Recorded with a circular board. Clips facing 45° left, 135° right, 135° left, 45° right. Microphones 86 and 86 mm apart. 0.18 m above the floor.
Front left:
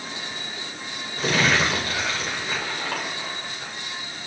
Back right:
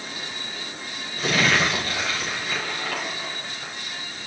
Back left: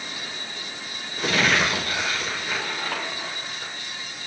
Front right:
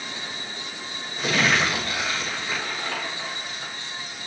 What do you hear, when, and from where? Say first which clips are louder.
1.2 s crumpling: even, even; 105° left, 9.5 m